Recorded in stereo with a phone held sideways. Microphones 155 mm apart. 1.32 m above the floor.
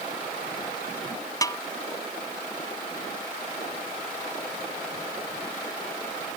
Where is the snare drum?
25° left (ahead or behind).